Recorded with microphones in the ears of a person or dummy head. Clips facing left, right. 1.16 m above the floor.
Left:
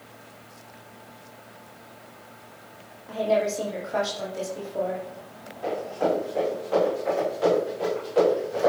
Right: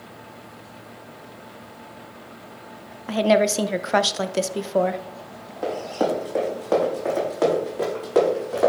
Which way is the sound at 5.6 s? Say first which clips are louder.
Right 2 dB; 75° right (ahead or behind).